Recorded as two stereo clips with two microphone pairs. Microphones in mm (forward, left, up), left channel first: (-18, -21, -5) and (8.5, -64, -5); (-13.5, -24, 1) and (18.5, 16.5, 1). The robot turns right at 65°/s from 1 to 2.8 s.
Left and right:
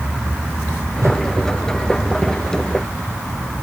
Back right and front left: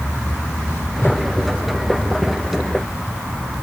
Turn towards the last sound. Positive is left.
turn(degrees=30)